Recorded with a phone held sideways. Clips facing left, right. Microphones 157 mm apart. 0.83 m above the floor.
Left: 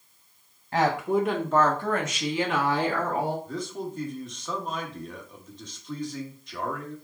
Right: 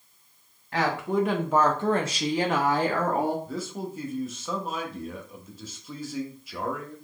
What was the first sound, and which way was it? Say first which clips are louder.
A woman speaking: left 2 dB; 25° left (ahead or behind).